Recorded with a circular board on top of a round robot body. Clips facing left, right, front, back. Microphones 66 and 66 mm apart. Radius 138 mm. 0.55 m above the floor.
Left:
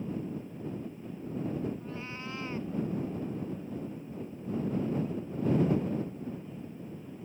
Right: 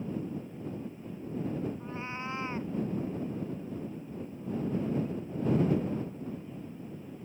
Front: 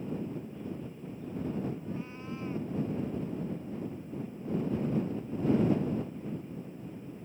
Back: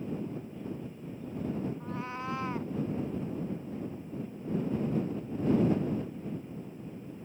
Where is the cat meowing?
155° right.